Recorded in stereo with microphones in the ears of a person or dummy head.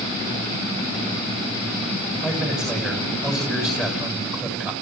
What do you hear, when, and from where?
2.2 s a man speaking: centre (ahead or behind), 7 m